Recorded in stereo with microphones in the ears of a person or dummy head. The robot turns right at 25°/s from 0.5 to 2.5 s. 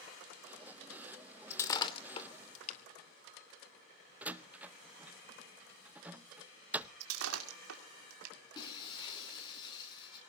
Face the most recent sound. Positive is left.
turn(degrees=25)  # may be behind; listen again after turning